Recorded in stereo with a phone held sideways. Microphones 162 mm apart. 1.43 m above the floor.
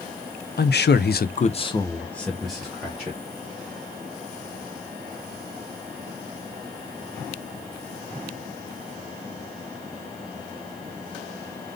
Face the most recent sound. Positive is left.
turn(degrees=-10)  # may be behind; listen again after turning